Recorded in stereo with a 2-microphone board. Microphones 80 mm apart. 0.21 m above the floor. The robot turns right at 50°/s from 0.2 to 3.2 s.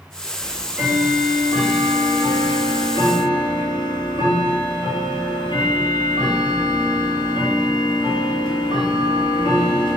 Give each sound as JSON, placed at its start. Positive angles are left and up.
{"t": 0.4, "sound": "ticking", "azimuth_deg": -40, "distance_m": 1.0}